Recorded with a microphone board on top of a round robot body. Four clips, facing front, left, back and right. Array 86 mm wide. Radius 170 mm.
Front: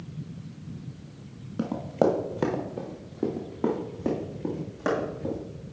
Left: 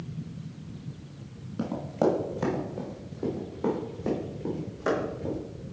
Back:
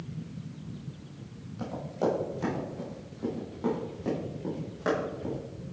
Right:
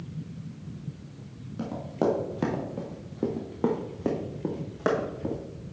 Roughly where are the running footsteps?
Ahead.